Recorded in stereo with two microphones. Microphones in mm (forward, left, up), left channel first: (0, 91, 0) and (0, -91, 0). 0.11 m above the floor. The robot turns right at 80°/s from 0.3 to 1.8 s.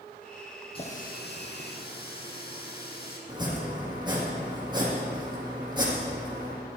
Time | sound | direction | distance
0.8 | a running tap | 30° left | 3.5 m
3.3 | chopping | 25° right (ahead or behind) | 5.5 m